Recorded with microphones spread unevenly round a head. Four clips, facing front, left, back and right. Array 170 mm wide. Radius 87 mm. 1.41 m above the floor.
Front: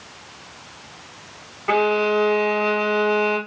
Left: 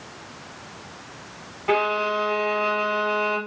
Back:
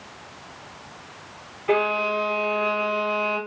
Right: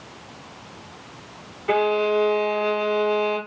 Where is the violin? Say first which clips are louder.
Right 2 dB, front 4 dB; 55° left, 1.8 m.